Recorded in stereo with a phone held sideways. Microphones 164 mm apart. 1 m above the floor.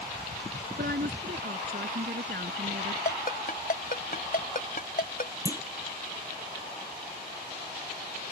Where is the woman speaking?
70° right (ahead or behind).